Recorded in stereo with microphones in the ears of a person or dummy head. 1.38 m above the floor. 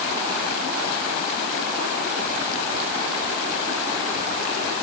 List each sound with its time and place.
Only background noise.